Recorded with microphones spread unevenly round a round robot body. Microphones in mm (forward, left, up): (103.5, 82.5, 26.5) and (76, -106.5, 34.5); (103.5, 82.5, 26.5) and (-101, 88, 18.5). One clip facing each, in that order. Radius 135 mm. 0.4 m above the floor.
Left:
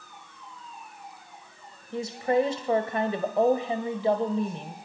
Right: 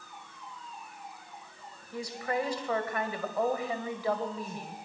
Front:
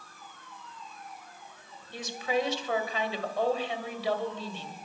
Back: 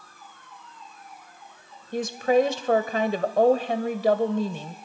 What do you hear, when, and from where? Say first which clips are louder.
1.9 s a woman speaking: left 8 dB, back 10 dB; 150° left, 1.6 m